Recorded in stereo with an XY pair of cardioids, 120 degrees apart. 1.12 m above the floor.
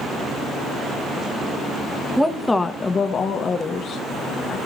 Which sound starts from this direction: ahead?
A woman speaking, at 2.2 s.